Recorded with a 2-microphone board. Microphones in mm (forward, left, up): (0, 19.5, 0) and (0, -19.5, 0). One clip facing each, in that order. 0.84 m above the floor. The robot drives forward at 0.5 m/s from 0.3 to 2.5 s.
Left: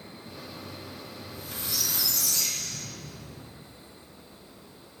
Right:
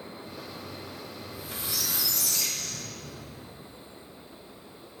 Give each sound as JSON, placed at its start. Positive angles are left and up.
{"t": 1.2, "sound": "a squeak", "side_deg": -15, "distance_m": 0.7}